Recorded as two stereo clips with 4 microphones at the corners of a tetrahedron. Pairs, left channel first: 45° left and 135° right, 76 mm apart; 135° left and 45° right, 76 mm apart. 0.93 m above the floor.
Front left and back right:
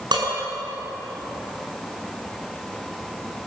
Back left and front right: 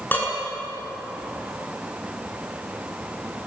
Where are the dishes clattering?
160° right, 8 m.